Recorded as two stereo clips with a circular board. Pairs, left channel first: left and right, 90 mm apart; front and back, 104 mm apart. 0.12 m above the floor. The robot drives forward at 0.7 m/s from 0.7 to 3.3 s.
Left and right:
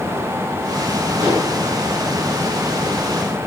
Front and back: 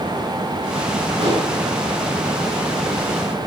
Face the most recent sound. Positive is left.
turn(degrees=-155)